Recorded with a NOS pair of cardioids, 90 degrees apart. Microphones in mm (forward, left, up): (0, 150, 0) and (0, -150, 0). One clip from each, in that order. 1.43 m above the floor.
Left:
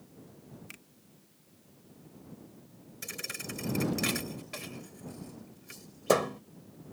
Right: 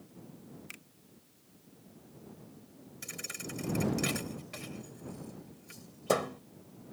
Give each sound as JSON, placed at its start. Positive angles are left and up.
{"t": 0.7, "sound": "a finger snap", "azimuth_deg": -10}
{"t": 3.0, "sound": "a thud", "azimuth_deg": 25}